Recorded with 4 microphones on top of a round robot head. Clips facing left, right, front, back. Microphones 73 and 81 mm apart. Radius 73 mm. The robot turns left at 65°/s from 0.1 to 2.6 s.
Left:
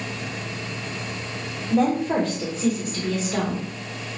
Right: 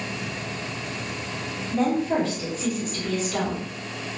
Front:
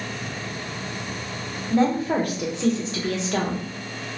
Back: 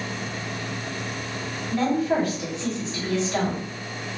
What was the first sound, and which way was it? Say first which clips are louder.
A woman speaking: left 2 dB, front 2 dB; 70° left.